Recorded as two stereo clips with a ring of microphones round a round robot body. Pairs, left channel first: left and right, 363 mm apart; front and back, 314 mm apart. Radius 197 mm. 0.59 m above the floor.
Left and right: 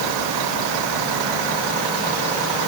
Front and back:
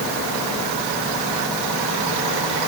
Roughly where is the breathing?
No breathing in this recording.